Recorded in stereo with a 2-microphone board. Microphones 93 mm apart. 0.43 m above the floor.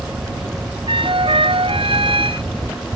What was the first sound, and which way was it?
A flute, 75° right (ahead or behind).